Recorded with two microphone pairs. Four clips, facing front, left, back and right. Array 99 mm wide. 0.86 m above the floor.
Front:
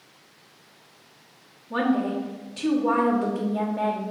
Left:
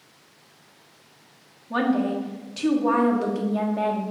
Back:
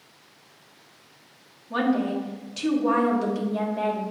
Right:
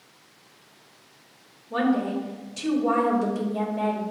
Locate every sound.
1.7 s a woman speaking: 105° left, 1.5 m